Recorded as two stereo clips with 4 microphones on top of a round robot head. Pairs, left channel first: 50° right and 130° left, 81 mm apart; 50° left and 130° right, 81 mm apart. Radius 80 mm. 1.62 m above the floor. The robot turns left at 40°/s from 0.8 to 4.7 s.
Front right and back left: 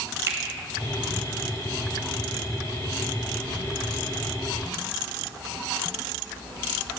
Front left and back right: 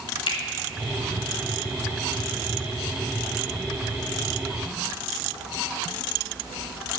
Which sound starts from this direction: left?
A finger snap, at 0.3 s.